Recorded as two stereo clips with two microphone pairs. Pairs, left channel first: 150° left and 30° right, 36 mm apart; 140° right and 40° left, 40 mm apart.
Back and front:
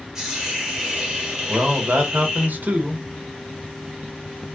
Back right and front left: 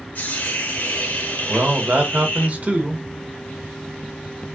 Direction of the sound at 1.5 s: 5° right.